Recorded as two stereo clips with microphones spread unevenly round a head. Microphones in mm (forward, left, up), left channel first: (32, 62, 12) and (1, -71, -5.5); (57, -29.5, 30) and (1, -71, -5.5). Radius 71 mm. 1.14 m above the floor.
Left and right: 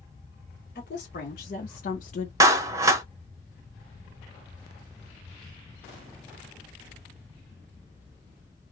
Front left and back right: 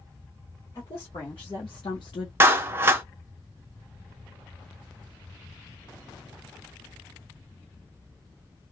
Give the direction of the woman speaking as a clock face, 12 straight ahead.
9 o'clock.